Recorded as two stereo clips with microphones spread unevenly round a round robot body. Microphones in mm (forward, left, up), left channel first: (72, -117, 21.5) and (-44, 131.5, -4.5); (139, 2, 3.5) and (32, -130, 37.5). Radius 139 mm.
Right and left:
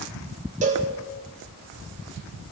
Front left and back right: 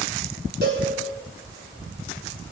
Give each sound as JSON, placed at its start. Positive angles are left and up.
{"t": 0.6, "sound": "a cowbell", "azimuth_deg": 175, "distance_m": 2.5}